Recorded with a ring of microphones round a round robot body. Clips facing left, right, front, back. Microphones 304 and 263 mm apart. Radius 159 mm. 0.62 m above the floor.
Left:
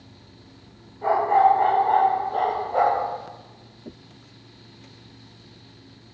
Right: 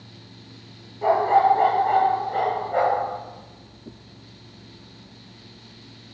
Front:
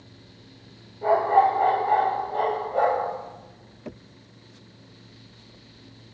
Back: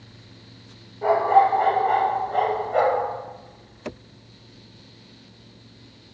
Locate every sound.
1.0 s a dog barking: 125° right, 5.5 m; by 3.1 s 150° right, 4 m